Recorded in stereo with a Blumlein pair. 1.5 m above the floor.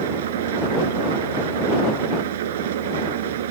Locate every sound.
0.0 s an engine running: 55° right